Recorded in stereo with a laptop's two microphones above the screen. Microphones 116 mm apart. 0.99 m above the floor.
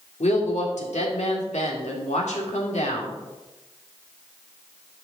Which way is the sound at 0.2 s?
80° left.